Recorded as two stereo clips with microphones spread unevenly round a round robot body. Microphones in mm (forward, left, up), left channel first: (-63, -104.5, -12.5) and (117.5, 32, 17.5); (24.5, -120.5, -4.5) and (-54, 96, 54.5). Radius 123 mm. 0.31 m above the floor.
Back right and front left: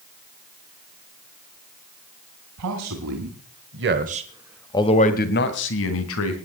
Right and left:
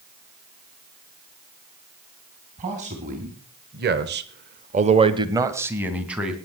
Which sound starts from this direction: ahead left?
A man speaking, at 2.6 s.